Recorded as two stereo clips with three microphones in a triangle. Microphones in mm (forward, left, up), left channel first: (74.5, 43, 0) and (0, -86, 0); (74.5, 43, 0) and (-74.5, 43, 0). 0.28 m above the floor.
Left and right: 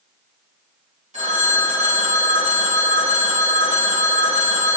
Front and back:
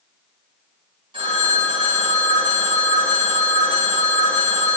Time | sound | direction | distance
1.1 | a phone ringing | 135° right | 1.9 m